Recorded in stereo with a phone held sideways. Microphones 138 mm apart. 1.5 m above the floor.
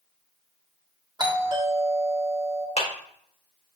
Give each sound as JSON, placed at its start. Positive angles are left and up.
{"t": 1.2, "sound": "a doorbell", "side_deg": -35, "distance_m": 1.3}
{"t": 2.8, "sound": "a clap", "side_deg": 50, "distance_m": 1.2}